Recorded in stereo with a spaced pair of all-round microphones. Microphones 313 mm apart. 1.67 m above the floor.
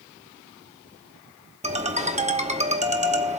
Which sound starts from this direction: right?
A ringtone, at 1.6 s.